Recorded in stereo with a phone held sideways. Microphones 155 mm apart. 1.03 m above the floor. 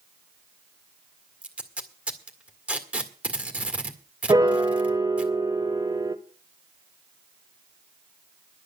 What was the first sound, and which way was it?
Tape being pulled, 10° right (ahead or behind).